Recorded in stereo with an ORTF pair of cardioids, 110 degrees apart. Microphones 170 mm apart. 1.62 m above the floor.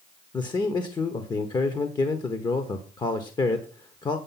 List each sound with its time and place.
0.3 s a man speaking: 25° left, 1.2 m